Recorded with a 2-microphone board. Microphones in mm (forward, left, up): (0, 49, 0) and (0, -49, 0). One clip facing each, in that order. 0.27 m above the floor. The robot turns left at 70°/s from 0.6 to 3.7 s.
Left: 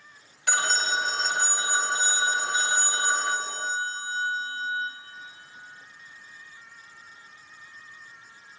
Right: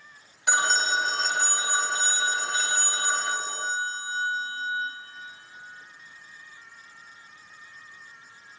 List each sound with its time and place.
0.5 s a phone ringing: 15° right (ahead or behind), 0.5 m; by 4.9 s 5° right (ahead or behind), 0.5 m